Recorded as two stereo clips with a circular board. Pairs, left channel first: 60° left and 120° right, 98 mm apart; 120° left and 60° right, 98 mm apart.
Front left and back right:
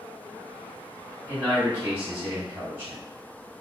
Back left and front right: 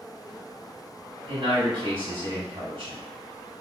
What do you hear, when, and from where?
1.3 s a man speaking: 55° right, 1.3 m